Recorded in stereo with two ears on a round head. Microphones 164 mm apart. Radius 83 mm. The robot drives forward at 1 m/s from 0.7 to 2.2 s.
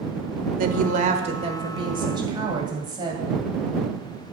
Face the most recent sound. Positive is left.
turn(degrees=-25)  # may be behind; listen again after turning